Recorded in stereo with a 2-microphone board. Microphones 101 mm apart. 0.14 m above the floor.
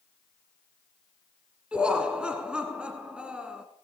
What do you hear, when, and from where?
1.7 s laughter: 10° right (ahead or behind), 1.1 m